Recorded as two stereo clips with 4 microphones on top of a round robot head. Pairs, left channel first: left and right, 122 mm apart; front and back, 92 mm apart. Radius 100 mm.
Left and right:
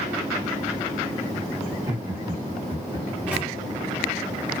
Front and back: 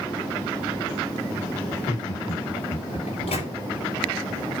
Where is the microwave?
10° right, 3 m.